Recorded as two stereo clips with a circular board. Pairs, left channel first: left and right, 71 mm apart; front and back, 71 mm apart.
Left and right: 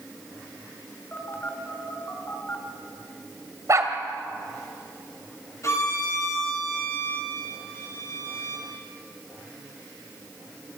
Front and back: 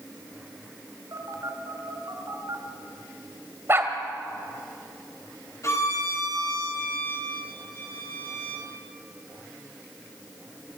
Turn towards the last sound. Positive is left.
turn(degrees=45)